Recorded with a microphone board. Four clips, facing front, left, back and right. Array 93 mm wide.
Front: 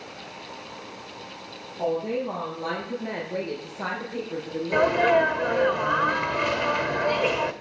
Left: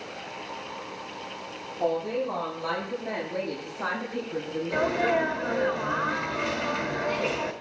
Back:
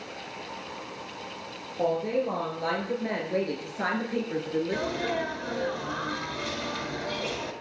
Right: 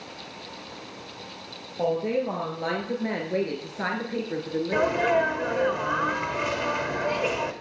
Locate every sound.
1.8 s a woman speaking: 110° right, 7 m; by 5.2 s 140° right, 5.5 m
4.7 s a sneeze: 20° right, 1.4 m